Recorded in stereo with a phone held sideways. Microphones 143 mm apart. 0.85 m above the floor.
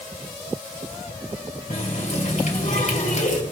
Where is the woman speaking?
No woman speaking in this recording.